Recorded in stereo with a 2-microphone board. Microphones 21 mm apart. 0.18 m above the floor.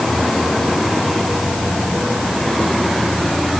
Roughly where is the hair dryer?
I don't hear a hair dryer.